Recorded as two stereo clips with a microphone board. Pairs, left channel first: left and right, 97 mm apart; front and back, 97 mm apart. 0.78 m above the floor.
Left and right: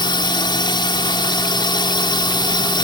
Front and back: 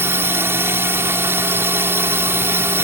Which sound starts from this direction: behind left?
A drone, at 0.0 s.